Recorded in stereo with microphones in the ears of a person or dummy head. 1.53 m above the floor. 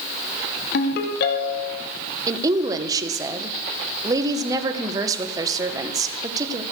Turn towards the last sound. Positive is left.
turn(degrees=-25)  # may be behind; listen again after turning